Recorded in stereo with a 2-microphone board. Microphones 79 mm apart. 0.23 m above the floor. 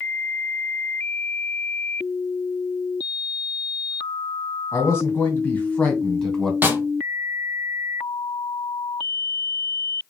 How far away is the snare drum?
About 0.9 m.